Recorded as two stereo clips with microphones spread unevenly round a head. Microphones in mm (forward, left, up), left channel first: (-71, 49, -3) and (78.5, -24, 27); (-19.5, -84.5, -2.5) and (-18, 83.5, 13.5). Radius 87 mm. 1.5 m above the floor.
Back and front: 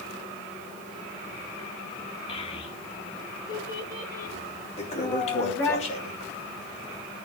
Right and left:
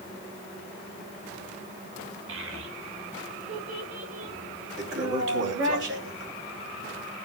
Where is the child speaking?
95° left, 2.0 m; by 5.8 s 75° left, 4 m.